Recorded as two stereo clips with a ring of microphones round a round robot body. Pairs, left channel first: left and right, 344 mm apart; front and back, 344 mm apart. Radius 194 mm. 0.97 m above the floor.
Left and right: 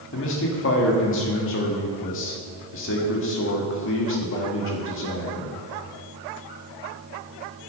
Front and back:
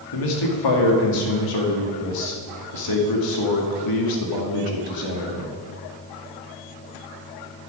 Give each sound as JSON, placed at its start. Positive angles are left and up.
{"t": 0.1, "sound": "a man speaking", "azimuth_deg": 30, "distance_m": 1.8}